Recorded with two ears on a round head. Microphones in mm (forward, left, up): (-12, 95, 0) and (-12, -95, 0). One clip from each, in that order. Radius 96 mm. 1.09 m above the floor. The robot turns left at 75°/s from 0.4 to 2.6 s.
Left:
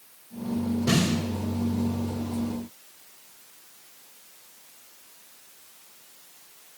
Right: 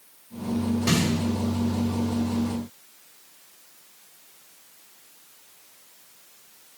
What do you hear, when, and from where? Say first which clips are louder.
0.9 s a snare drum: even; 70° right (ahead or behind), 4 m; by 1.1 s 55° right (ahead or behind), 4 m